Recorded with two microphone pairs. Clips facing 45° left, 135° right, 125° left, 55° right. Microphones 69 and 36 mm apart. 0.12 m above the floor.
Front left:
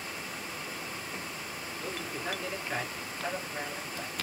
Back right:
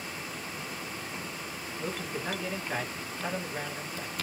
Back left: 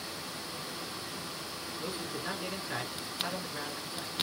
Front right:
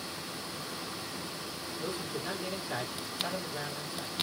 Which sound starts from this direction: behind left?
A man speaking, at 1.8 s.